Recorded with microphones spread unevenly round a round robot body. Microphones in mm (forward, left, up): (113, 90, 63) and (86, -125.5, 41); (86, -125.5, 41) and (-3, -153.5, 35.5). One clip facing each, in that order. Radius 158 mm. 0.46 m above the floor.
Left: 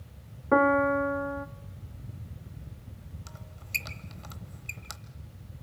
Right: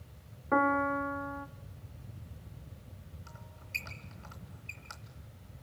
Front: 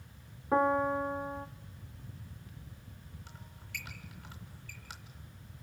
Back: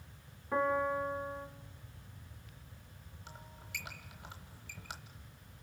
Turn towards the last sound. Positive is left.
turn(degrees=130)